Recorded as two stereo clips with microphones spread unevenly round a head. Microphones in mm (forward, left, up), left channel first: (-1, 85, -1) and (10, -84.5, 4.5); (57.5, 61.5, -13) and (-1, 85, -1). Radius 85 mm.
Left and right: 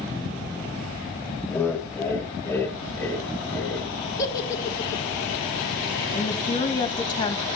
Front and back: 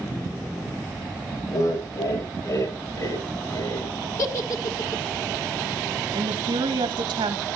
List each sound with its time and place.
1.5 s laughter: 15° left, 7.5 m; by 3.9 s 10° left, 9 m
4.2 s a giggle: 20° left, 1.6 m
6.1 s a woman speaking: 160° left, 1.9 m